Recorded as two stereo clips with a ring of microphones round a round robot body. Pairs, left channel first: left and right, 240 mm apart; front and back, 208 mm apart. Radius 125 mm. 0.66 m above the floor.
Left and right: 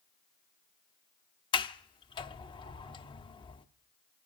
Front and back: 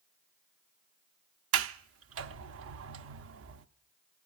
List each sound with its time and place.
1.5 s a sliding door: 160° left, 0.6 m